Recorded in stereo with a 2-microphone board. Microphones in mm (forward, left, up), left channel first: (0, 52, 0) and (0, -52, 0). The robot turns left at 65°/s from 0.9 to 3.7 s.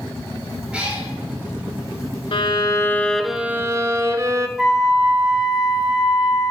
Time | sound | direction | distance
0.7 | a cat meowing | 10° right (ahead or behind) | 2.5 m
2.3 | a violin | 60° left | 0.5 m
4.6 | a flute | 5° right (ahead or behind) | 2 m